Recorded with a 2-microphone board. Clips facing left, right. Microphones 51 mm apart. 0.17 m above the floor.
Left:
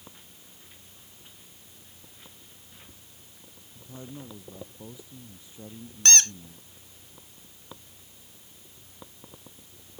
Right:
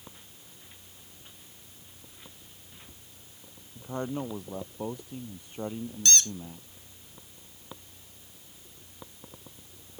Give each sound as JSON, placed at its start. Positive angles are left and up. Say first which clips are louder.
{"t": 3.8, "sound": "a man speaking", "louder": "right 10 dB", "side_deg": -60}
{"t": 6.0, "sound": "a squeak", "louder": "left 4 dB", "side_deg": 60}